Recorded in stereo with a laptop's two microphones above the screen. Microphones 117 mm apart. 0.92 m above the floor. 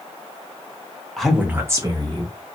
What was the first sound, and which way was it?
A woman speaking, 5° left (ahead or behind).